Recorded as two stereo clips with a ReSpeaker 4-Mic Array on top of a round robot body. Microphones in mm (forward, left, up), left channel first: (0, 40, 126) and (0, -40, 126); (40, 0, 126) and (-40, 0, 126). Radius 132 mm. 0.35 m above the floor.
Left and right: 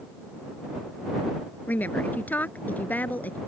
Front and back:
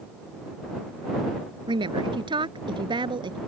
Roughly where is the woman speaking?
Behind.